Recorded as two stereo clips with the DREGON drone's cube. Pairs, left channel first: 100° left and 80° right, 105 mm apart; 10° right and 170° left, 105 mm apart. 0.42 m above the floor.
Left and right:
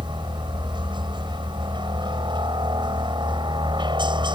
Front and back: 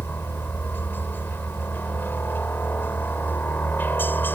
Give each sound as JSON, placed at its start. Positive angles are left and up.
{"t": 0.0, "sound": "a helicopter", "azimuth_deg": -75}